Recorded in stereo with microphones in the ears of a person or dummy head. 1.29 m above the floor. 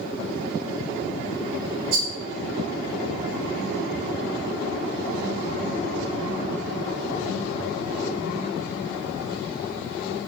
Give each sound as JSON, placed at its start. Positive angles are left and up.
{"t": 1.9, "sound": "a rattle", "side_deg": -55, "distance_m": 0.8}